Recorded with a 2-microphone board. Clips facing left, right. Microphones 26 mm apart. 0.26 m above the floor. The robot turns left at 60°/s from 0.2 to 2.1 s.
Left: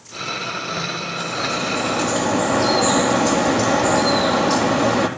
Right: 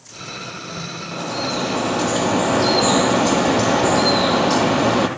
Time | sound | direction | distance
1.1 | dripping | 95° right | 4 m